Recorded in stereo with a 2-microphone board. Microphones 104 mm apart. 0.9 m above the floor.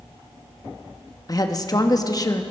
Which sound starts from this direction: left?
A woman speaking, at 1.3 s.